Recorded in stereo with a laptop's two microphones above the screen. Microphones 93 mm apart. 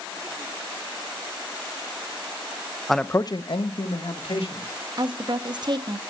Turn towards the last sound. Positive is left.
turn(degrees=-55)  # may be behind; listen again after turning